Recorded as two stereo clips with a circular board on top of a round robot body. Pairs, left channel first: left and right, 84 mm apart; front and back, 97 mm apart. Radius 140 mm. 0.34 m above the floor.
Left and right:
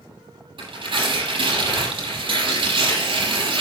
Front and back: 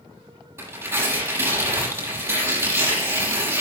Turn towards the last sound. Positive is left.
turn(degrees=-115)